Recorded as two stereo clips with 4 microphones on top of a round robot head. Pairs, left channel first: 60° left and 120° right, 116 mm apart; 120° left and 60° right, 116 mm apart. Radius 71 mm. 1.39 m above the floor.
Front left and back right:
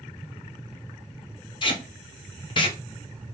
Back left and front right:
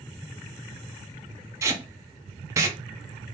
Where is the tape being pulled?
10° left, 0.6 m.